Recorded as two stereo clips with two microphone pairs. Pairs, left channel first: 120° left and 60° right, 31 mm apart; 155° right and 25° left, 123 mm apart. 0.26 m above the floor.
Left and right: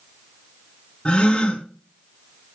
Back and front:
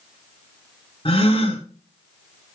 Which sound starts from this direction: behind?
A gasp, at 1.1 s.